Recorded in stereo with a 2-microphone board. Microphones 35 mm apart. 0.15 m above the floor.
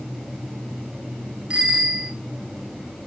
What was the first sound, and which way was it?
A bicycle bell, 30° right (ahead or behind).